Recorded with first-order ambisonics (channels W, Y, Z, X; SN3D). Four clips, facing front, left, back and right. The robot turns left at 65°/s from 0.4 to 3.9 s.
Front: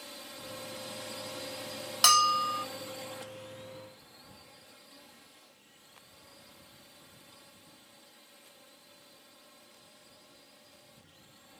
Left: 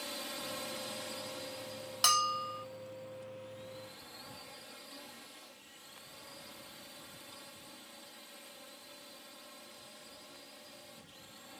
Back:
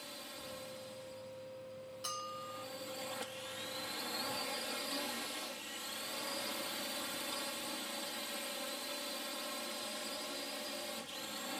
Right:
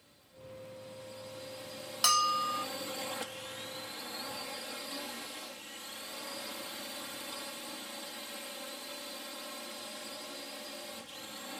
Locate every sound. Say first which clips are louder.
0.0 s a drone: left 14 dB, front 2 dB; 80° left; by 11.6 s 145° right
2.0 s a bell: right 2 dB, front 20 dB; straight ahead; by 2.6 s 40° right